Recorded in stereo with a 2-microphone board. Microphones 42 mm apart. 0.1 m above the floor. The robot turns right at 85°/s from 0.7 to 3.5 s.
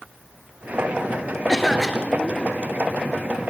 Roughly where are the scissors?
I don't hear scissors.